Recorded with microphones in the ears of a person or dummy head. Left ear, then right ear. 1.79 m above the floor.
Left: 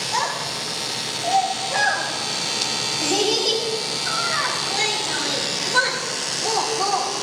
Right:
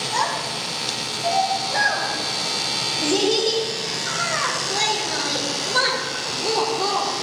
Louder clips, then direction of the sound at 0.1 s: Right 1 dB; 20° left (ahead or behind).